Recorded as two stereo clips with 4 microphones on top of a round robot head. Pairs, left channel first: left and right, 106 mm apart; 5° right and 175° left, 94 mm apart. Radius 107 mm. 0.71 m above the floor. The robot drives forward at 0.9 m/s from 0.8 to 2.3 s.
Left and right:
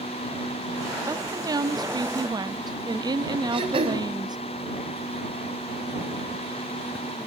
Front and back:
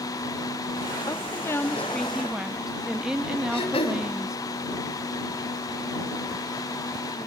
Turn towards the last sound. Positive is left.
turn(degrees=-45)